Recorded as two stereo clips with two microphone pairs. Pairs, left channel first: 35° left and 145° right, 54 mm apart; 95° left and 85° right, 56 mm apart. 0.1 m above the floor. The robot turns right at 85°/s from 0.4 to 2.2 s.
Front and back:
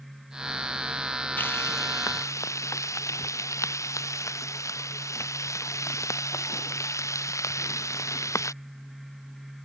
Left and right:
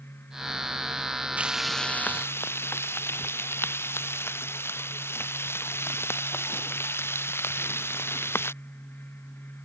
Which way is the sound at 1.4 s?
20° right.